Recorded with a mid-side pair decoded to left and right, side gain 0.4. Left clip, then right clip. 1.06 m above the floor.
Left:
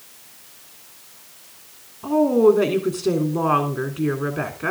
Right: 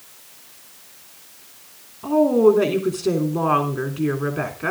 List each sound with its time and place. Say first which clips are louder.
2.0 s a woman speaking: even; straight ahead, 3.5 m